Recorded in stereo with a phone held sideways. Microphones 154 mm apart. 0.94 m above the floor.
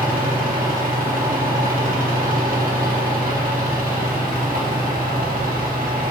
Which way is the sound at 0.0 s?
70° right (ahead or behind).